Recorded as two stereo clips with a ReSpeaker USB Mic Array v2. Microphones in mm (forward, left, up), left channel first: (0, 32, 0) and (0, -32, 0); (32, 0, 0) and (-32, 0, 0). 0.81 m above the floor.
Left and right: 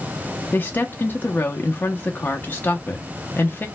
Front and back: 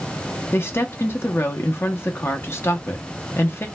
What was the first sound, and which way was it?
A woman speaking, 35° left.